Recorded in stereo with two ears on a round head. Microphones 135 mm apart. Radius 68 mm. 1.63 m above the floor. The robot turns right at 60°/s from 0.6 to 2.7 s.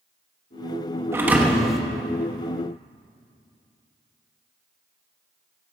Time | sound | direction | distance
1.1 | a thud | 15° right (ahead or behind) | 1.0 m